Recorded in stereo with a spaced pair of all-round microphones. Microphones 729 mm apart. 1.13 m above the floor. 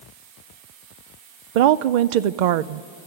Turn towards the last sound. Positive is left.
turn(degrees=-75)  # may be behind; listen again after turning